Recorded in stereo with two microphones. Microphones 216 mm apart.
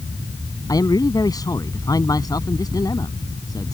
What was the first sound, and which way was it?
A man speaking, 15° left (ahead or behind).